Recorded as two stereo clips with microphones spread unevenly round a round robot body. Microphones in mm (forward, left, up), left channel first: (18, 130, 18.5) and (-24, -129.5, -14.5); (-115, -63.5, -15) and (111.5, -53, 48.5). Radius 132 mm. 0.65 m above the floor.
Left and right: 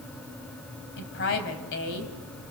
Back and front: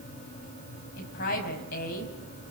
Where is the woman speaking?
130° left, 4.5 m.